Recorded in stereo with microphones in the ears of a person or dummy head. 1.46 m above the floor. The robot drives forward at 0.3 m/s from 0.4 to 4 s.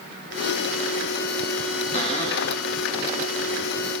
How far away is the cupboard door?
About 2 m.